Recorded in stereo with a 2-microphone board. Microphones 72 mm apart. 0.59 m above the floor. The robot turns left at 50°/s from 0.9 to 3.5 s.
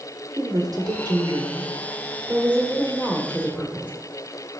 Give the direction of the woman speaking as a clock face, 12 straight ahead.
3 o'clock.